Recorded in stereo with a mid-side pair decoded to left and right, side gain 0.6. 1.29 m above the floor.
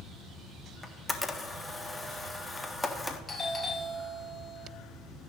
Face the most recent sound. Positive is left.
turn(degrees=20)